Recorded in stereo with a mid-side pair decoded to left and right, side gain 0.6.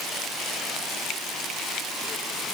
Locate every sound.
Only background noise.